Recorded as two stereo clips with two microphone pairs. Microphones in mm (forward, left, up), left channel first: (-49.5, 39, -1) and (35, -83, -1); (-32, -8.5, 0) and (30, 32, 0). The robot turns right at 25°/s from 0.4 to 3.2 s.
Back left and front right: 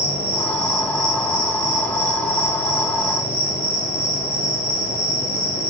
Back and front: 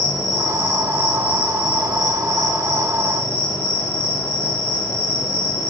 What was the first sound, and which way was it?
An insect, 80° left.